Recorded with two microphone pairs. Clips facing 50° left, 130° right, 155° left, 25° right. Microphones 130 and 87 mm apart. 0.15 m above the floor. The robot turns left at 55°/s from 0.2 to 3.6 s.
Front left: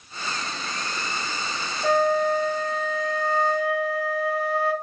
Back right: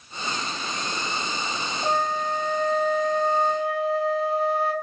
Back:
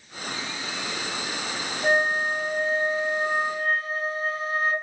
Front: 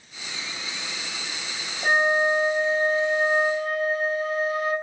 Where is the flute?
75° right, 0.8 m; by 4.7 s 170° right, 0.8 m.